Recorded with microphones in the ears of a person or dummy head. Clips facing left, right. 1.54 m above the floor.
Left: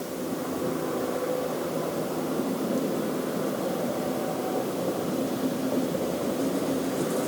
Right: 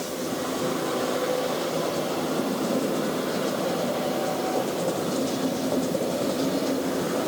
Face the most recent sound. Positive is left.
No sound to turn to.